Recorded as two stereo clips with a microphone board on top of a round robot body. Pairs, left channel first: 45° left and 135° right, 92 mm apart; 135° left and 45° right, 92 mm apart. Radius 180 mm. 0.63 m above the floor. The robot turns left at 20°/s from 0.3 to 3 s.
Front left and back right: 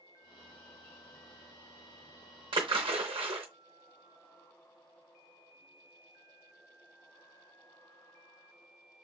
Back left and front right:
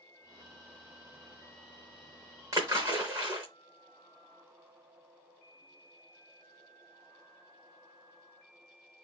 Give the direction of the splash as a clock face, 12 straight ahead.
3 o'clock.